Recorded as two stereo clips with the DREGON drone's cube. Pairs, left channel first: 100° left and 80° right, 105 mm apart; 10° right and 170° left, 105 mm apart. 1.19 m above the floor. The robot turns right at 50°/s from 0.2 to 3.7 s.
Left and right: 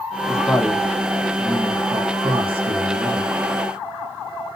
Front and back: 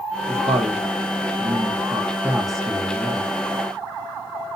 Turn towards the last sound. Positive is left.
turn(degrees=-40)